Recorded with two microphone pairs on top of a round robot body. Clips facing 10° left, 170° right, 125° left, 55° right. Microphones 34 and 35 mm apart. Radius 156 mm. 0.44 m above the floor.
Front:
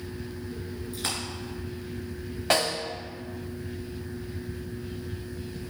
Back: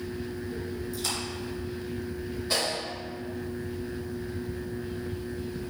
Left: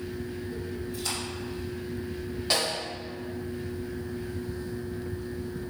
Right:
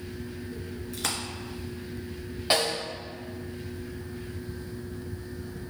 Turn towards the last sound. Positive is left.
turn(degrees=10)